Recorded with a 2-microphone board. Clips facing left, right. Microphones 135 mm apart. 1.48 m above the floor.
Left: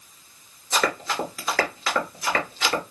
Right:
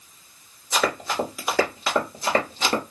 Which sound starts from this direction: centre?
Running footsteps, at 0.7 s.